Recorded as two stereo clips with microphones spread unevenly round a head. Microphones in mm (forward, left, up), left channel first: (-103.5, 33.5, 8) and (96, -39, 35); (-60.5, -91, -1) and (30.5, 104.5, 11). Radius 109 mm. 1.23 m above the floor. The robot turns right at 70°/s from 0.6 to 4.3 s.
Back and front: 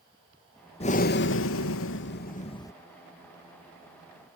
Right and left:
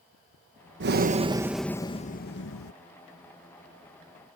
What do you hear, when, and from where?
0.8 s breathing: 100° left; by 2.7 s 125° right